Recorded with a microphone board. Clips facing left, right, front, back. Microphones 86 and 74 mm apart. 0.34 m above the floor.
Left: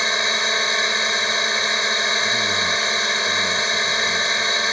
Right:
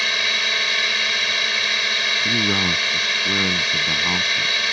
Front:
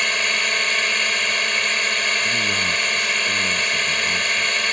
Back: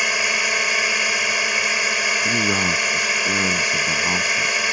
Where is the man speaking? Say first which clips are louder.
Even, back 2 dB; 130° right.